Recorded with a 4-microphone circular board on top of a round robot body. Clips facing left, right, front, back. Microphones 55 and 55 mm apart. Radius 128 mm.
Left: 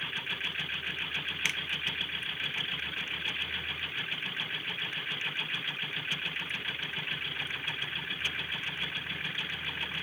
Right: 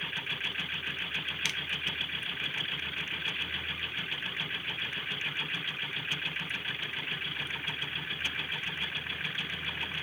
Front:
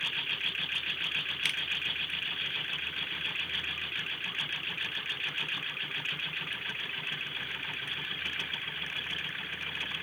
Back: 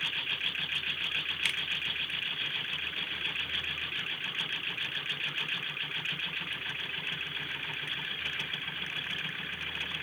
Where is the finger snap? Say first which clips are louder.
Left 3 dB, even; 100° left, 0.6 m.